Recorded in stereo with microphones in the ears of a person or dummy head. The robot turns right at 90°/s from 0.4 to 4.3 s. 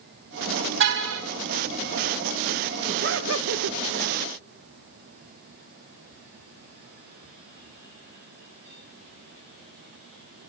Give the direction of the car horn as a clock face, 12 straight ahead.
4 o'clock.